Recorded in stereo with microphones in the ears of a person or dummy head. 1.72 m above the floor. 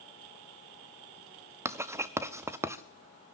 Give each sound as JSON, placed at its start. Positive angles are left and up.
{"t": 1.6, "sound": "writing", "side_deg": -10, "distance_m": 0.6}